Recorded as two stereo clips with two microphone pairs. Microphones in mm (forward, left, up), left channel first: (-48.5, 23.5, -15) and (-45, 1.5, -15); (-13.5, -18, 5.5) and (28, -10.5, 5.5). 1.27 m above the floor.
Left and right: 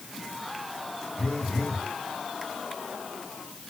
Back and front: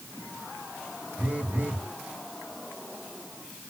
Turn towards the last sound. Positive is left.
turn(degrees=55)